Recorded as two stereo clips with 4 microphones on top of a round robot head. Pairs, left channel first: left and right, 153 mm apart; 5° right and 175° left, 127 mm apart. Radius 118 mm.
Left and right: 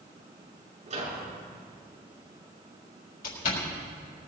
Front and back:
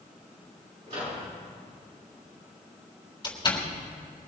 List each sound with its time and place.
0.9 s a microwave: 130° right, 7 m
3.2 s a door slam: 50° left, 3.5 m